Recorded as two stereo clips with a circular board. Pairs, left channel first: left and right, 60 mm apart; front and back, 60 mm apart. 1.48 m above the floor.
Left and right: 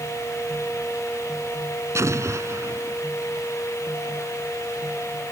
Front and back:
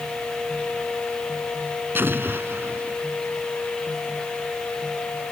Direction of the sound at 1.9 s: 125° right.